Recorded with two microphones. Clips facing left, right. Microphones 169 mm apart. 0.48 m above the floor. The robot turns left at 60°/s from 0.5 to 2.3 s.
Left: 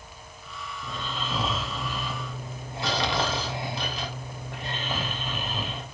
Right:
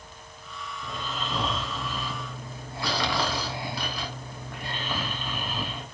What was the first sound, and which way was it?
Snoring, 10° right (ahead or behind).